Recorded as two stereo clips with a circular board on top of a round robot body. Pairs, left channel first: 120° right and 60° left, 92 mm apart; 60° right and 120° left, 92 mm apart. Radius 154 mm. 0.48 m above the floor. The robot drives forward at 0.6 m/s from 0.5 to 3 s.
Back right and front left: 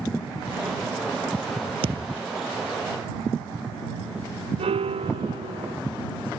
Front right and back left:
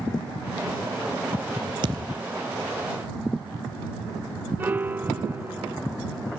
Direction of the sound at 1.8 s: 85° left.